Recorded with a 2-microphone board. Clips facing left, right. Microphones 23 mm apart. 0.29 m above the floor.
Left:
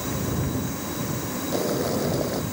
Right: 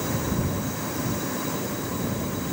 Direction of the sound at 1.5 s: 60° left (ahead or behind).